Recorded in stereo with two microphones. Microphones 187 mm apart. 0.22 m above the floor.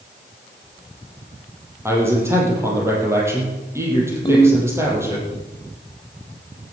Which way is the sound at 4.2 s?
25° left (ahead or behind).